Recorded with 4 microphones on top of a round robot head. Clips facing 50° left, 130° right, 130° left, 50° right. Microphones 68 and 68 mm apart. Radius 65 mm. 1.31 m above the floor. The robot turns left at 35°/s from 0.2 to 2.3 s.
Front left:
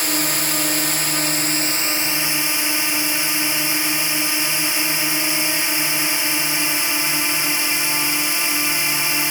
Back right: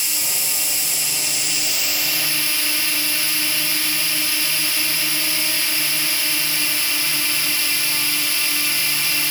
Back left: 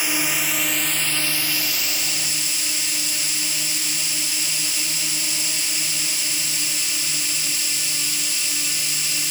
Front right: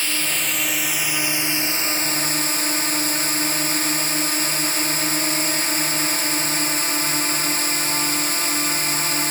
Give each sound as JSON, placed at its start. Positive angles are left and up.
{"t": 0.0, "sound": "a drone", "azimuth_deg": 60}